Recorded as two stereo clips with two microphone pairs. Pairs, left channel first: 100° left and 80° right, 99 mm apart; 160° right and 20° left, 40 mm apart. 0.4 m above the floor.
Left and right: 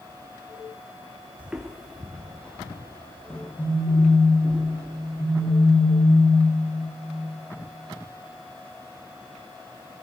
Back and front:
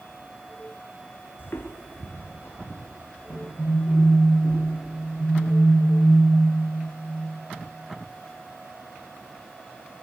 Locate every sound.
1.4 s footsteps: 150° right, 0.8 m; by 4.6 s 175° left, 5.5 m
3.6 s a phone buzzing: 130° left, 3.5 m